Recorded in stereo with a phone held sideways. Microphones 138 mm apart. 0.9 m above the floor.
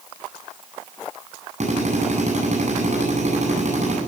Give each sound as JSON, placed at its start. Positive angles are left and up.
{"t": 1.6, "sound": "a drill", "side_deg": -55, "distance_m": 9.5}